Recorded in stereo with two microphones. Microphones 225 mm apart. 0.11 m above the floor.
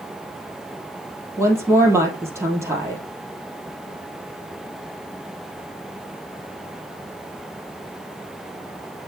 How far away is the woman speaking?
About 2.5 m.